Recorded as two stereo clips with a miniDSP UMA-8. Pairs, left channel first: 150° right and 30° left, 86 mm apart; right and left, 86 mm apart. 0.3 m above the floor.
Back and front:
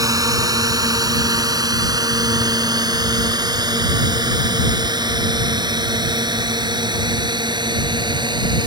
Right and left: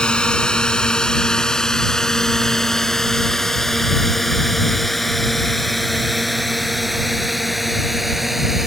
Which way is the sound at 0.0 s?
10° right.